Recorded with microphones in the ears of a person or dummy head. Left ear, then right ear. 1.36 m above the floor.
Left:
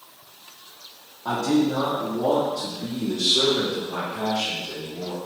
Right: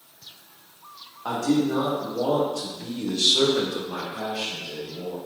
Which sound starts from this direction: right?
A man speaking, at 1.2 s.